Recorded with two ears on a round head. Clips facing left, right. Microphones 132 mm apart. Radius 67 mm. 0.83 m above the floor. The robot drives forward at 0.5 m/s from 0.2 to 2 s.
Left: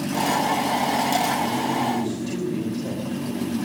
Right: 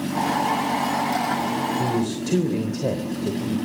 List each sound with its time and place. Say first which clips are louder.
1.8 s a man speaking: right 1 dB; 65° right (ahead or behind), 3 m